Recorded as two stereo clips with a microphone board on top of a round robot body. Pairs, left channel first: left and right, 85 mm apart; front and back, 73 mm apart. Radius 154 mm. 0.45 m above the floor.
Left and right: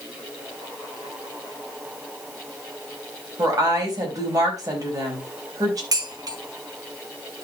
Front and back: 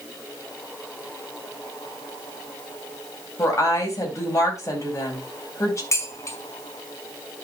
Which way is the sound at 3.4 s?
45° right.